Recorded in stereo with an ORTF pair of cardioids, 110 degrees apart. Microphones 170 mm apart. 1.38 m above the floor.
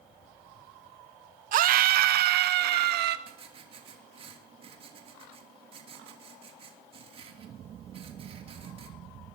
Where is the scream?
55° right, 0.7 m; by 3.2 s 75° right, 1.6 m.